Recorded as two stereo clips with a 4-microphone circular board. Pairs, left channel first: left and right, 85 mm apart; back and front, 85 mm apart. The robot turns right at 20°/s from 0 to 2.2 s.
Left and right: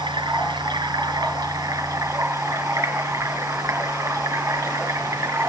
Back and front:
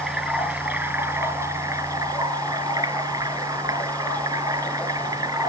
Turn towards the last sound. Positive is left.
turn(degrees=-40)